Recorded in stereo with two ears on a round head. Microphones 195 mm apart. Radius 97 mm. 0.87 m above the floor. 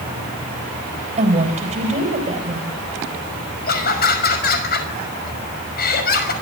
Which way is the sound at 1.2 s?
30° right (ahead or behind).